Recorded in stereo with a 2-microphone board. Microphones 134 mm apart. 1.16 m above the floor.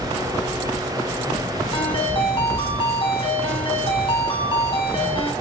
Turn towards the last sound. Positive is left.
turn(degrees=40)  # may be behind; listen again after turning